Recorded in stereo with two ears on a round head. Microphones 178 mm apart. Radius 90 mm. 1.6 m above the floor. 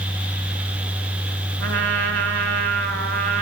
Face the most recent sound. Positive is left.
turn(degrees=-65)  # may be behind; listen again after turning